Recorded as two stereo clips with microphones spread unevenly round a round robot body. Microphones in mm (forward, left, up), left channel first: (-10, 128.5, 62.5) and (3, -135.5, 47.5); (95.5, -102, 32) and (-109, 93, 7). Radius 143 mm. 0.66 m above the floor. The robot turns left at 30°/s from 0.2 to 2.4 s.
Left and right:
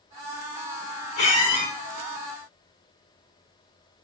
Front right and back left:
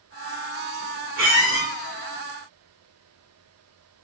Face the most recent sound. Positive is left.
turn(degrees=50)